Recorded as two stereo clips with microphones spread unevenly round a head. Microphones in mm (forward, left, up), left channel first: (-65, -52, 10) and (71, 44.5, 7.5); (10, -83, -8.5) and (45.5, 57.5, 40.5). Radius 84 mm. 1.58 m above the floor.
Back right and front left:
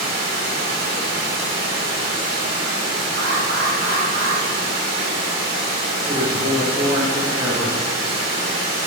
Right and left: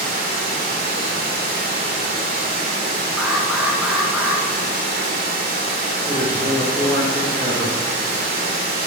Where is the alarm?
5° right, 1.2 m.